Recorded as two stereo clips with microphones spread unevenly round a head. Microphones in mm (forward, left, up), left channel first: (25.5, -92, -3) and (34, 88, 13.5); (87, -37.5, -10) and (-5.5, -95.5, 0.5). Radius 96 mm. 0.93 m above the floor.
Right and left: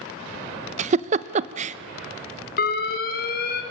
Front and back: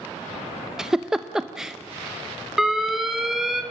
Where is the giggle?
120° left, 0.7 m.